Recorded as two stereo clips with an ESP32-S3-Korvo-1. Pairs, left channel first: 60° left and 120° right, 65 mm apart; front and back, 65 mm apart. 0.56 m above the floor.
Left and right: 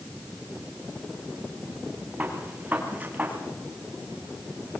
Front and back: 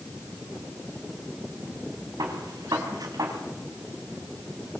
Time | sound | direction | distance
2.2 | a gunshot | 175° left | 5 m